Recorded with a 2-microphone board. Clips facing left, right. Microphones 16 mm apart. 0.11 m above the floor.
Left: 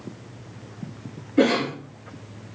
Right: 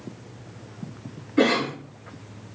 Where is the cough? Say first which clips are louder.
Left 1 dB; 20° right (ahead or behind), 1.6 m.